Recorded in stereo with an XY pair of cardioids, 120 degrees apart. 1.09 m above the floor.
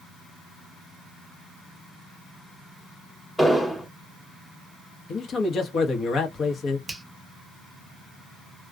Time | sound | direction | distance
3.4 | an explosion | straight ahead | 1.0 m
5.1 | a man speaking | 50° left | 1.0 m
6.9 | a finger snap | 10° right | 0.8 m